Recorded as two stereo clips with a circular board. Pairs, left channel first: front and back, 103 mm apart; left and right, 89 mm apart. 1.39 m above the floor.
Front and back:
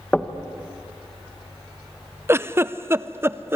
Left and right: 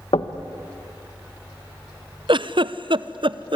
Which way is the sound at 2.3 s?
115° right.